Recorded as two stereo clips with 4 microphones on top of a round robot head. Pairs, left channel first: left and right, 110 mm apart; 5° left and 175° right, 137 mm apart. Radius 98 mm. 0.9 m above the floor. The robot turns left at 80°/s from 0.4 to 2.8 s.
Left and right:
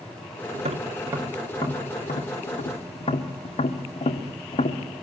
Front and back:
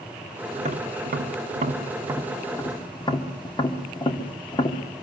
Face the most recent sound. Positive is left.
turn(degrees=60)